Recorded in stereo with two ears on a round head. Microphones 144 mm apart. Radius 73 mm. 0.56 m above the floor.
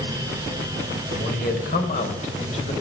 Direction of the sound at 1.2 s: 65° left (ahead or behind).